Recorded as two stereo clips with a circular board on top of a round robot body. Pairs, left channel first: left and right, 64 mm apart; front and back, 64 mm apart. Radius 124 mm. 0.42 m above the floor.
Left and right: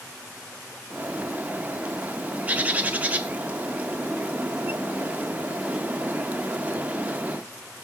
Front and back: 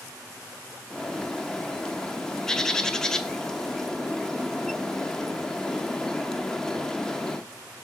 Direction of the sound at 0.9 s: 70° right.